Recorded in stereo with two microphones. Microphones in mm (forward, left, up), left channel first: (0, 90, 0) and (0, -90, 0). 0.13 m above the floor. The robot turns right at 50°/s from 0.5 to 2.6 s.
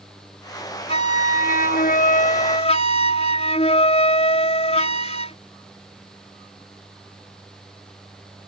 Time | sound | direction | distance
0.9 | a flute | 50° left | ?